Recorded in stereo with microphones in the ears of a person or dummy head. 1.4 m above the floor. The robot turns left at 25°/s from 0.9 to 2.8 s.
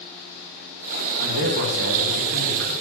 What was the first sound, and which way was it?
A man speaking, 85° right.